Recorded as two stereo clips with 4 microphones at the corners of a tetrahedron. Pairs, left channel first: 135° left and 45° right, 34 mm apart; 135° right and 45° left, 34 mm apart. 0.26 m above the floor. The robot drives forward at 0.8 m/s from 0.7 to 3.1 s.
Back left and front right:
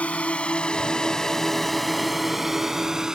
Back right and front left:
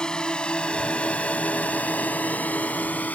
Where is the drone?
165° left; by 3.1 s 110° right.